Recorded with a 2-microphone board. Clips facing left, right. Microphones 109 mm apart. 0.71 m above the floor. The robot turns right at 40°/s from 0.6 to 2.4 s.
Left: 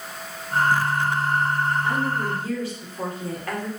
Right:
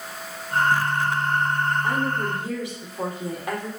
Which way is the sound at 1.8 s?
40° right (ahead or behind).